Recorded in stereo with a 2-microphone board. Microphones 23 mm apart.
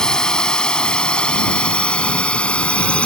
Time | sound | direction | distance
0.0 | a drone | 30° left (ahead or behind) | ?